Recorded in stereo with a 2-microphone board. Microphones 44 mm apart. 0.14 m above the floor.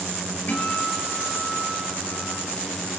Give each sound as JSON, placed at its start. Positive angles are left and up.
{"t": 0.5, "sound": "a guitar", "side_deg": 45, "distance_m": 3.0}